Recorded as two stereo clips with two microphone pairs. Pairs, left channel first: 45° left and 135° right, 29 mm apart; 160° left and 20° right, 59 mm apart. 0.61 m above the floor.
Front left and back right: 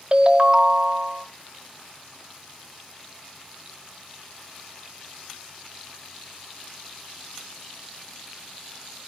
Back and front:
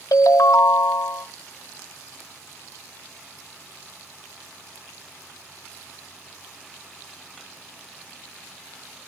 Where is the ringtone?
160° left, 1.1 m.